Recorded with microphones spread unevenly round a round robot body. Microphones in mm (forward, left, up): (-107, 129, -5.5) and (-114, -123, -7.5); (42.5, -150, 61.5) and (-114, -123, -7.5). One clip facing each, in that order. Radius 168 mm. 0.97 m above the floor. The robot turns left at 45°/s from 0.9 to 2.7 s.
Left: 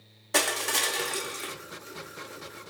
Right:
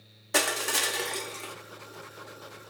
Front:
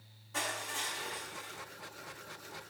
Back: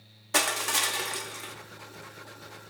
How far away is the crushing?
About 0.6 m.